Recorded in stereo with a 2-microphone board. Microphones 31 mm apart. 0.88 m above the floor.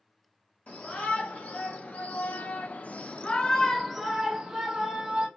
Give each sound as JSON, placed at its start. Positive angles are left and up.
{"t": 0.7, "sound": "a shout", "side_deg": 50, "distance_m": 1.6}